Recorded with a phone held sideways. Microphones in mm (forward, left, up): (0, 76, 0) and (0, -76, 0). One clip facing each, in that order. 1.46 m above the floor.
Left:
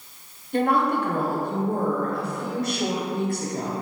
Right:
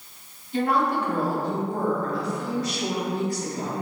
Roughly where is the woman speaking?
Left.